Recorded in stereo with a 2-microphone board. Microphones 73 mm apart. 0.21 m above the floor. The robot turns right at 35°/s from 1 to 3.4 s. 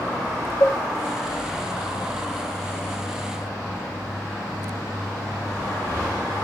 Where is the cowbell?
80° left, 1.3 m.